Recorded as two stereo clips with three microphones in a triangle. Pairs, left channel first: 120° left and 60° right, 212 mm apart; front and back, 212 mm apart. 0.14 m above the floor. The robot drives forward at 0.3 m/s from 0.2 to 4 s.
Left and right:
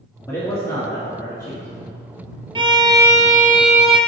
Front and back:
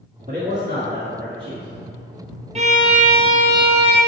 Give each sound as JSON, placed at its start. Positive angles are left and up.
{"t": 0.3, "sound": "a man speaking", "azimuth_deg": -165, "distance_m": 1.4}
{"t": 2.5, "sound": "a violin", "azimuth_deg": -125, "distance_m": 0.7}